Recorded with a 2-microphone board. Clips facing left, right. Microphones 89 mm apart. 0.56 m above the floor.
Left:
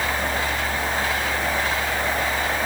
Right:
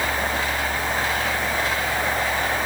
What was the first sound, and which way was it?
Only background noise.